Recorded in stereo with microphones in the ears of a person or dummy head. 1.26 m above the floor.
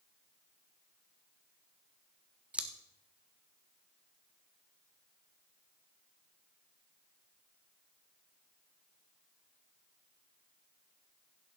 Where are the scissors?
5° right (ahead or behind), 0.8 m.